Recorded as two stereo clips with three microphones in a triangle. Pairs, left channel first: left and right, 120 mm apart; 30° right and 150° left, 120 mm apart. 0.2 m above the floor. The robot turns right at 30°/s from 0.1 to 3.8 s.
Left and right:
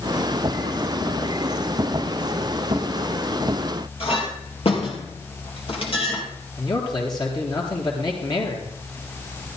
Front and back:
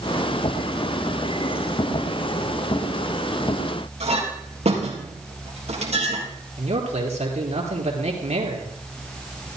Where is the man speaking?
140° left, 3.5 m.